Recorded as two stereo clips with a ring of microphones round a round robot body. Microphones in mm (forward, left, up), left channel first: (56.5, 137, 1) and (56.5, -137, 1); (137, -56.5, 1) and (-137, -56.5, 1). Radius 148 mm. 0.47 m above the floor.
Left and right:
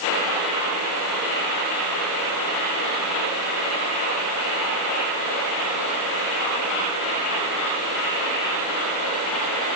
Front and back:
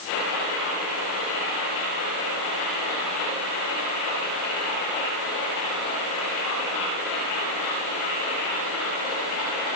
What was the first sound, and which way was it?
Only background noise.